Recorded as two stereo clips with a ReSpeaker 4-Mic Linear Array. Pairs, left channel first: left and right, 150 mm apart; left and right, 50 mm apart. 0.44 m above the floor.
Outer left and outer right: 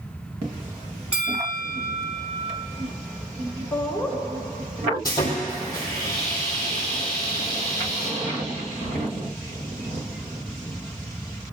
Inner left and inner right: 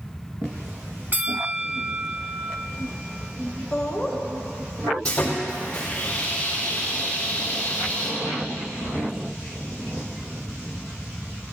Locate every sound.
1.1 s a bell: 40° right (ahead or behind), 1.0 m
3.7 s laughter: 10° left (ahead or behind), 3.5 m
5.0 s sawing: 25° left (ahead or behind), 4 m